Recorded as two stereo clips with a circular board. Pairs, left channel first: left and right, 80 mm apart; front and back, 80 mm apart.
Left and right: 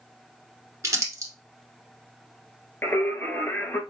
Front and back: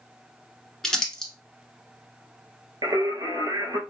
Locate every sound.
0.8 s crumpling: 80° right, 1.0 m
2.8 s singing: 150° left, 0.7 m